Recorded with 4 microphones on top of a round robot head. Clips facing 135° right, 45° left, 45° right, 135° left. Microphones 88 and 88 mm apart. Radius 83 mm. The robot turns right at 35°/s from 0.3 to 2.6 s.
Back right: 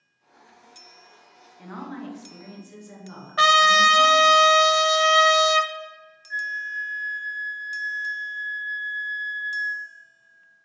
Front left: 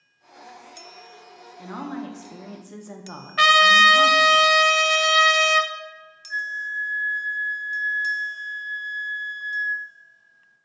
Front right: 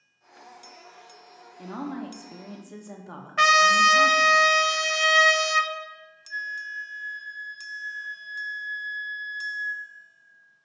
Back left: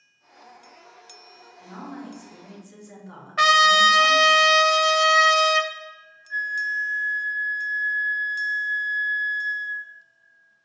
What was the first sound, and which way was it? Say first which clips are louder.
A woman speaking: front left 3 dB, front right 4 dB; 35° right.